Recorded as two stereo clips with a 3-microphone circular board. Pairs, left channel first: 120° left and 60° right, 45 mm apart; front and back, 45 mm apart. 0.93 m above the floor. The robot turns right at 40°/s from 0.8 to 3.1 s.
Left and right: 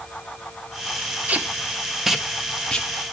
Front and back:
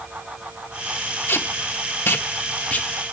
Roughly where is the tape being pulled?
Ahead.